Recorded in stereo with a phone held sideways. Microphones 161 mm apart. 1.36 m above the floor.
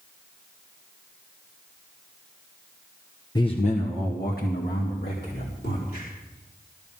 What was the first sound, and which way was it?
A man speaking, 25° left (ahead or behind).